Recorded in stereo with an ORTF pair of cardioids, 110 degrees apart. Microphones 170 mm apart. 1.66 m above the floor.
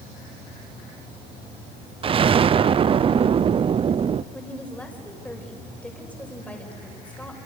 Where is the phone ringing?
No phone ringing in this recording.